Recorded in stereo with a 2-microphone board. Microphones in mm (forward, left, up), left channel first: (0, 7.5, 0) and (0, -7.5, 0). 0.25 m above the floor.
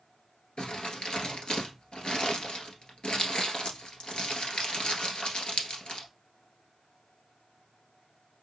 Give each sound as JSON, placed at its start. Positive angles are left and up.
{"t": 0.6, "sound": "crumpling", "side_deg": 70, "distance_m": 1.3}